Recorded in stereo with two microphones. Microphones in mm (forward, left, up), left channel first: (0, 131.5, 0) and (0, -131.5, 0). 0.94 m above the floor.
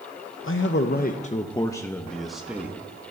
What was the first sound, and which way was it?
A man speaking, 50° left (ahead or behind).